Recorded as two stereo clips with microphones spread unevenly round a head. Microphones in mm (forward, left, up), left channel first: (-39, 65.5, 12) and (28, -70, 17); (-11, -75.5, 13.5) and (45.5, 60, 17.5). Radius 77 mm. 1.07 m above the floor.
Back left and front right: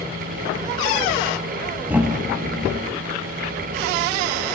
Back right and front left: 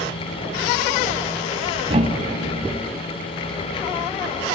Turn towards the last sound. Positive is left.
turn(degrees=15)